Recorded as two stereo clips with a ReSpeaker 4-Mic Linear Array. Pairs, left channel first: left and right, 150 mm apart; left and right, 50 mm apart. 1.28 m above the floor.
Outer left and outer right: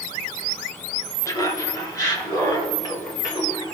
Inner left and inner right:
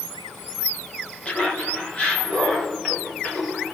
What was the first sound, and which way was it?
Laughter, 20° left (ahead or behind).